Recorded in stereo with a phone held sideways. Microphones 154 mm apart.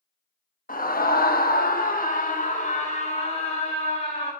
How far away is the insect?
No insect in this recording.